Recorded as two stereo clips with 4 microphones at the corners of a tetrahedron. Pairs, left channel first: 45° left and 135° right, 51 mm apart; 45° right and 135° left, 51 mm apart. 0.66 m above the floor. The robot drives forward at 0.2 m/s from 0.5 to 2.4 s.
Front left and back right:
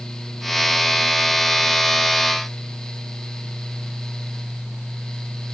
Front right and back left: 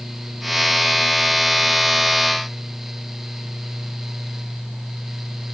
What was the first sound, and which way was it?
Only background noise.